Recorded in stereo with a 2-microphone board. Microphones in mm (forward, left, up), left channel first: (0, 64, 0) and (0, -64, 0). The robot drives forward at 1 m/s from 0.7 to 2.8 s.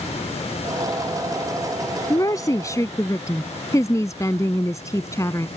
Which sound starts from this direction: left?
A woman speaking, at 2.1 s.